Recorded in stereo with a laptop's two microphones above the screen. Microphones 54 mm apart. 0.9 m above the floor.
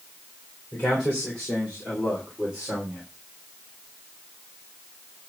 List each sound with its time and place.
0.7 s a man speaking: 20° left (ahead or behind), 3.5 m; by 3.0 s 5° right (ahead or behind), 3.5 m